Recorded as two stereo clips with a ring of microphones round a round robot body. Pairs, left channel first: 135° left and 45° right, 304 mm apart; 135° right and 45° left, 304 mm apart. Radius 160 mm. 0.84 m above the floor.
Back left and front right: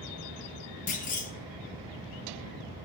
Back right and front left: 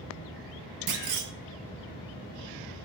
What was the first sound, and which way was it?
A clunk, 70° left.